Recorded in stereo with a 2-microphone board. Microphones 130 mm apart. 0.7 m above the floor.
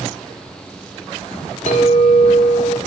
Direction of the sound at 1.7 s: 65° left (ahead or behind).